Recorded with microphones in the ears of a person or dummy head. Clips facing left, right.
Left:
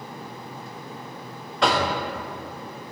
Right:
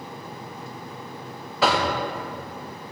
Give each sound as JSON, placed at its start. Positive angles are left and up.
{"t": 1.6, "sound": "knocking", "side_deg": -5, "distance_m": 0.7}